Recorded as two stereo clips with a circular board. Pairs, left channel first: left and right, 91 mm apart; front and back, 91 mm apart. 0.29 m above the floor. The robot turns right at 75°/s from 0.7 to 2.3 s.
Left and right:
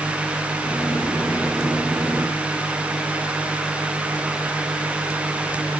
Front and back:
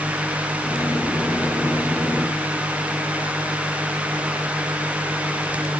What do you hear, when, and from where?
Only background noise.